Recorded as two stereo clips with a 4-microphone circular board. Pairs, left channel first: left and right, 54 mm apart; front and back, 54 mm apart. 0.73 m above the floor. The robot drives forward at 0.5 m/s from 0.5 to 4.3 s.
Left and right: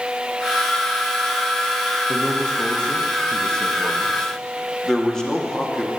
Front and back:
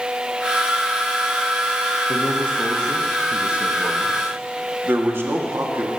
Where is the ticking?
No ticking in this recording.